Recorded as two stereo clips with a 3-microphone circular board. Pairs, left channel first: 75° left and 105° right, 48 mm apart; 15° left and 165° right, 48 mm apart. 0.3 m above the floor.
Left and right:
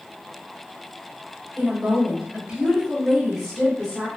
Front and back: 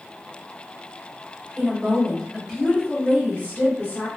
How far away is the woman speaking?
About 1.1 m.